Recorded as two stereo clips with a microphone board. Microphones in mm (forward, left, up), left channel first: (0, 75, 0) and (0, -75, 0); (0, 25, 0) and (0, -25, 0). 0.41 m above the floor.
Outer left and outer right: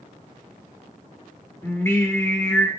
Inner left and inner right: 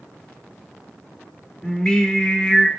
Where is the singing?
15° left (ahead or behind), 0.7 m.